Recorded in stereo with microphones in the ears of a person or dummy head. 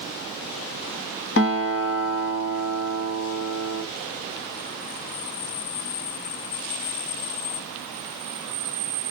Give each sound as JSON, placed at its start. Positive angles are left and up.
{"t": 1.4, "sound": "a guitar", "side_deg": 50, "distance_m": 1.2}